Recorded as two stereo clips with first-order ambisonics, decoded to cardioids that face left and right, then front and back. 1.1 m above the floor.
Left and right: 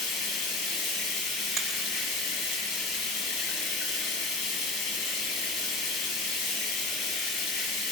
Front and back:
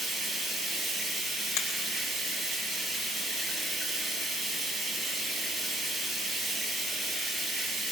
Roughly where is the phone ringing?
I don't hear a phone ringing.